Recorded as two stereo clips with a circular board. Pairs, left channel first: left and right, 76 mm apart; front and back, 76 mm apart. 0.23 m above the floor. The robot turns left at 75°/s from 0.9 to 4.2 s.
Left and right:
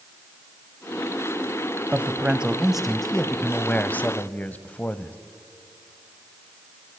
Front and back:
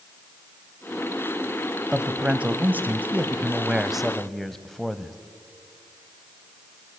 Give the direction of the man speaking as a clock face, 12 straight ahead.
4 o'clock.